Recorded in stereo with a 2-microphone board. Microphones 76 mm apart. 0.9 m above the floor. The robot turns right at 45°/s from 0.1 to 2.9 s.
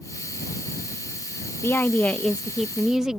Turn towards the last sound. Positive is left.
turn(degrees=-170)